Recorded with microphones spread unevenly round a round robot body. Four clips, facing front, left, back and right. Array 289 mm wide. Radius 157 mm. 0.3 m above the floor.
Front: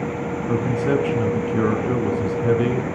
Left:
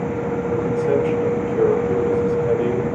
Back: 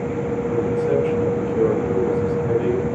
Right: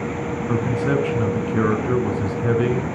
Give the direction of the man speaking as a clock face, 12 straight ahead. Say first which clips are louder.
Left 2 dB, even; 2 o'clock.